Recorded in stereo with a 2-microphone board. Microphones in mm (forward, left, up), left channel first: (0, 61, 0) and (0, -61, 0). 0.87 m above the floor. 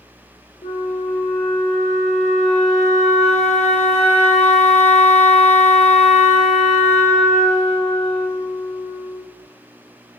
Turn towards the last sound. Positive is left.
turn(degrees=70)  # may be behind; listen again after turning